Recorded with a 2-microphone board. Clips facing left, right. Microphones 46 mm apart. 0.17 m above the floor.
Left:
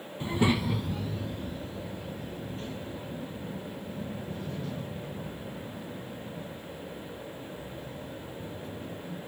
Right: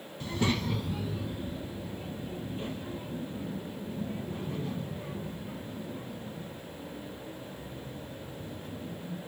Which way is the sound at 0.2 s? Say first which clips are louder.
Left 3 dB; 25° left (ahead or behind).